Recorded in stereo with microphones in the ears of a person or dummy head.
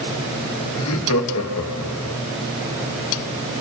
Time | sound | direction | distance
0.8 | laughter | 80° left | 2.0 m